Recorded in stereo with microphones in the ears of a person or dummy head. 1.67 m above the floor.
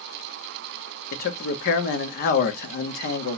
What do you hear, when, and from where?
1.1 s a man speaking: 60° left (ahead or behind), 0.7 m